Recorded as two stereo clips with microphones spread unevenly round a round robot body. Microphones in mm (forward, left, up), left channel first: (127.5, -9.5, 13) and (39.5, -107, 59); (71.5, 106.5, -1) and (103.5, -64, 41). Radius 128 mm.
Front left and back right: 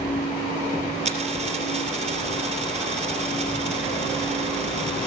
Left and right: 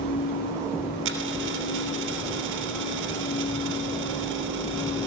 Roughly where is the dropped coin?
Right.